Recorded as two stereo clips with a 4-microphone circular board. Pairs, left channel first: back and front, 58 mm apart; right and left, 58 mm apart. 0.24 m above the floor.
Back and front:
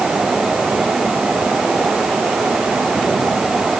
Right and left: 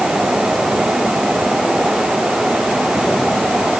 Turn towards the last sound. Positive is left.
No sound to turn to.